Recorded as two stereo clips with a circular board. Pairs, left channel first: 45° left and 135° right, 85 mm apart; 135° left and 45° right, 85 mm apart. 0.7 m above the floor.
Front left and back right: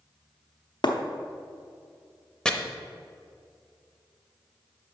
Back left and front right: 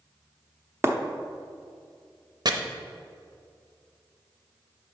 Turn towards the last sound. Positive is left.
turn(degrees=-35)